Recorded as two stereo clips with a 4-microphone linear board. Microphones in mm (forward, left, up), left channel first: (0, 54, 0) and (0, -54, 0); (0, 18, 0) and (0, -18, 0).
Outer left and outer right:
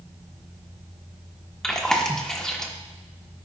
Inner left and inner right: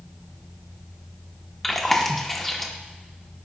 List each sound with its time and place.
1.6 s chewing: 5° left (ahead or behind), 1.0 m